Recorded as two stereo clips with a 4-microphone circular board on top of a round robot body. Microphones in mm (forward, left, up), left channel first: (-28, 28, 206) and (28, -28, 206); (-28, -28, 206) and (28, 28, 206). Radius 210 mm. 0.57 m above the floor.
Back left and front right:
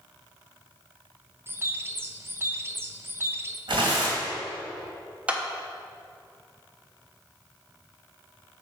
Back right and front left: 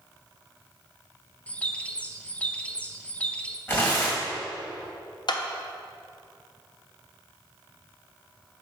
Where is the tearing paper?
70° right, 1.9 m.